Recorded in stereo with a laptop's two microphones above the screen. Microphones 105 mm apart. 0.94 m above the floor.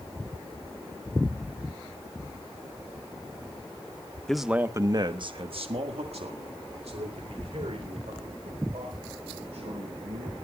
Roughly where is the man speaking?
Centre.